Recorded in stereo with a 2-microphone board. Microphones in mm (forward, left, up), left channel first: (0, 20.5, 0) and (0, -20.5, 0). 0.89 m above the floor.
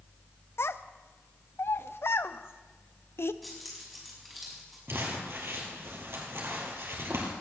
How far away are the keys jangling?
About 5.5 m.